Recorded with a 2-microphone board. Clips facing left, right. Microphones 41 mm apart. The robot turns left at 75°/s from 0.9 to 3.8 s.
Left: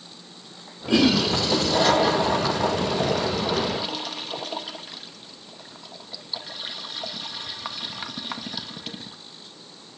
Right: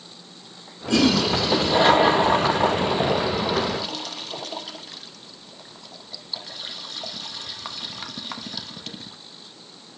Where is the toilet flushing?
15° left (ahead or behind), 0.6 m; by 9.2 s 10° left (ahead or behind), 0.6 m.